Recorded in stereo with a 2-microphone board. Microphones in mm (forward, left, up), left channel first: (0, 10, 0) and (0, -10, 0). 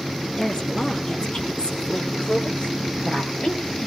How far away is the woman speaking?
About 4 m.